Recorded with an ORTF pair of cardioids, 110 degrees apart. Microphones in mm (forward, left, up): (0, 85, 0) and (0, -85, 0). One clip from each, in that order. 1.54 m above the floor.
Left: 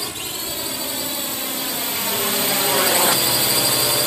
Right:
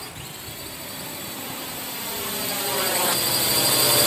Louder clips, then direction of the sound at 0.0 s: Left 9 dB; 65° left.